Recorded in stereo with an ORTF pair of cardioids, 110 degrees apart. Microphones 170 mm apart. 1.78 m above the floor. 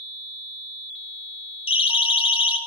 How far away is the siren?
About 3 m.